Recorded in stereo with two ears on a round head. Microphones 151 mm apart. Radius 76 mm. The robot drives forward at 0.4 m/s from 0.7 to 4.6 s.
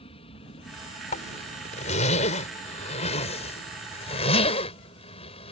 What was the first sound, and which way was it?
An aircraft, 35° left (ahead or behind).